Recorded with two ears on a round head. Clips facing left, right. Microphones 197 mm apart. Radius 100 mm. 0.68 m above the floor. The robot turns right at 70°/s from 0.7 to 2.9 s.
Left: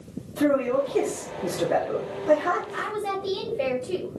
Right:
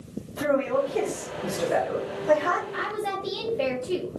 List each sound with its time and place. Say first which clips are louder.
0.4 s a man speaking: left 2 dB; 45° left, 1.3 m; by 2.6 s 175° left, 1.3 m
2.7 s a woman speaking: left 1 dB; centre (ahead or behind), 0.9 m; by 4.2 s 10° right (ahead or behind), 0.9 m